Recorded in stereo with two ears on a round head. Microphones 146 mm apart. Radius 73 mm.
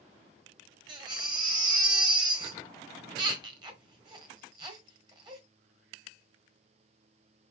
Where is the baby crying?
30° right (ahead or behind), 1.4 m.